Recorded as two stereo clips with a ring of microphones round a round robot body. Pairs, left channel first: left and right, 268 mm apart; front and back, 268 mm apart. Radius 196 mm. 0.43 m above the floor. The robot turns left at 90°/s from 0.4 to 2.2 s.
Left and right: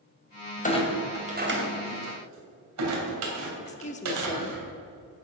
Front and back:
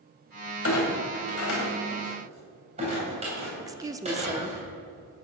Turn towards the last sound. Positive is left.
turn(degrees=115)